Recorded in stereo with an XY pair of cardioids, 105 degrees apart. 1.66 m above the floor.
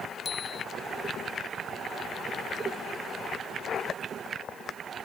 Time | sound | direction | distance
0.2 | a bicycle bell | 40° left | ?